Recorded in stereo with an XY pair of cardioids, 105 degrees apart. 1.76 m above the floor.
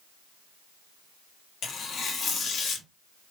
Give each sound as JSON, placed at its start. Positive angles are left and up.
{"t": 1.6, "sound": "tearing paper", "azimuth_deg": 55, "distance_m": 1.3}